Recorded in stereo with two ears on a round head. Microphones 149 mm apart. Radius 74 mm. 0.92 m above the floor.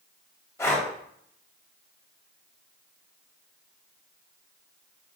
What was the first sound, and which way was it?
Breathing, 15° left (ahead or behind).